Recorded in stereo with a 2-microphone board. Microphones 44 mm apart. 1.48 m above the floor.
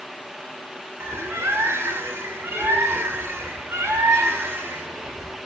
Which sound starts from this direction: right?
A bird, at 1.0 s.